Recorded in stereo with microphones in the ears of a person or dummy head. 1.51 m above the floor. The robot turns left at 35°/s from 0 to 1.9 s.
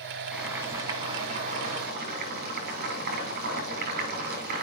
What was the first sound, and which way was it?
Boiling, straight ahead.